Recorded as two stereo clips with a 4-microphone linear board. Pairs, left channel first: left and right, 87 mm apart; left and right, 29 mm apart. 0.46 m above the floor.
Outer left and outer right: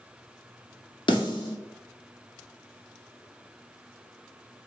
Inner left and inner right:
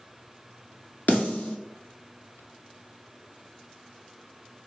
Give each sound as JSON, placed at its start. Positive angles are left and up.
{"t": 1.1, "sound": "a snare drum", "side_deg": 75, "distance_m": 1.0}